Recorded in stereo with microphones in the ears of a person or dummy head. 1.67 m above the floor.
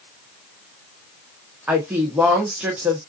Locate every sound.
1.7 s a woman speaking: 5° right (ahead or behind), 1.3 m